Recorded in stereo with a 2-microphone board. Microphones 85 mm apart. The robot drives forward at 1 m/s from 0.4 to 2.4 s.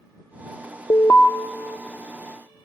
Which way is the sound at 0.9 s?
40° left (ahead or behind).